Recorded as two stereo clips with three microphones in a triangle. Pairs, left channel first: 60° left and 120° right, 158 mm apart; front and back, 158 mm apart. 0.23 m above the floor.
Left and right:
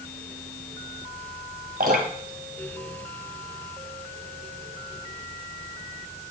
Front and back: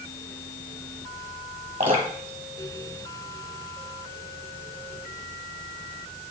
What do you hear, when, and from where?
1.8 s dripping: 135° right, 1.3 m